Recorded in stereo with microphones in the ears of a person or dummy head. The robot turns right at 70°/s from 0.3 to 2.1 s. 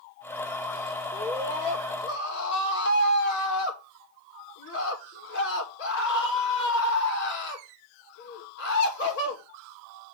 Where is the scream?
Straight ahead, 5.5 m; by 9.4 s 70° left, 5.5 m.